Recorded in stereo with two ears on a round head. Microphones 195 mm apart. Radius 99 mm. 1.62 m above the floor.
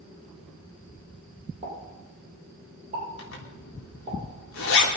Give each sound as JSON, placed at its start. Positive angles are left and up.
{"t": 1.6, "sound": "a pop", "side_deg": -25, "distance_m": 7.0}
{"t": 3.2, "sound": "a zipper", "side_deg": 60, "distance_m": 3.5}